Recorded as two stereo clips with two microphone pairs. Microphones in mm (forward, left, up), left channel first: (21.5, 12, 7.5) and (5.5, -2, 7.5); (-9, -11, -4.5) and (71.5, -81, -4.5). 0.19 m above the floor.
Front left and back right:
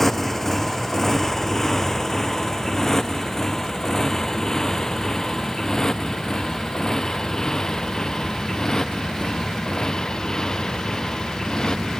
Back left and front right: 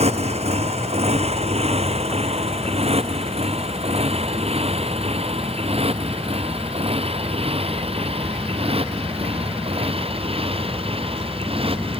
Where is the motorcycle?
35° right; by 12.0 s 15° right.